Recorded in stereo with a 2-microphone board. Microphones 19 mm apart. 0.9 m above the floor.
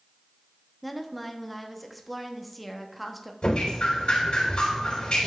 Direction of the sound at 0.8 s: Centre (ahead or behind).